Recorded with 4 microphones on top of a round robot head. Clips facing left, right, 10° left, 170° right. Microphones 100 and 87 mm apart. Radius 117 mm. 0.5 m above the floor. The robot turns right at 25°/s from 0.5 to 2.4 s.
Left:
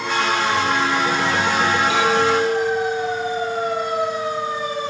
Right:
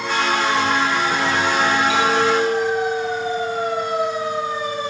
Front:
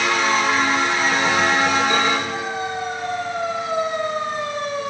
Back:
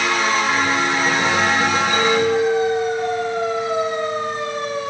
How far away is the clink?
About 3.5 m.